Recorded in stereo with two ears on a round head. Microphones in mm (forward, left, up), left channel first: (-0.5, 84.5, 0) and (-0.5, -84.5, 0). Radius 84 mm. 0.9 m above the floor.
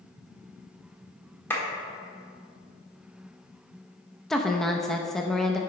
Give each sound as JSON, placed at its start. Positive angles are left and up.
{"t": 1.5, "sound": "a clap", "side_deg": 10, "distance_m": 1.6}
{"t": 4.3, "sound": "a woman speaking", "side_deg": 0, "distance_m": 0.5}